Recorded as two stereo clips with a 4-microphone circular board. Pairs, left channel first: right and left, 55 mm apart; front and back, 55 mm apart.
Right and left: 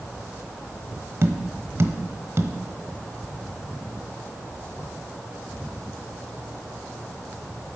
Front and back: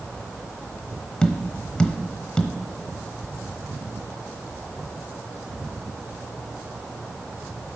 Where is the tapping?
70° left, 1.1 m.